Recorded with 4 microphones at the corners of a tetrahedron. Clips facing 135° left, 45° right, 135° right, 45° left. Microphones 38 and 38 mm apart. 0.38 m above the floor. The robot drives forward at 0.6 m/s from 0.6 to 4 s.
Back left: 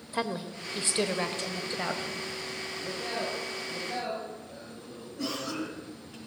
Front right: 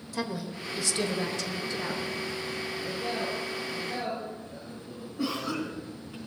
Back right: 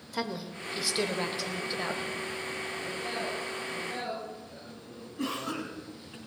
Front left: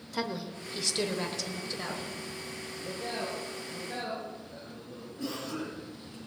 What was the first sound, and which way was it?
A woman speaking, 140° left.